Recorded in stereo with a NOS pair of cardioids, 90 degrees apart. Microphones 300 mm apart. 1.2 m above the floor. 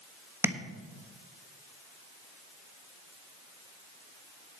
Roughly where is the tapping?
Ahead.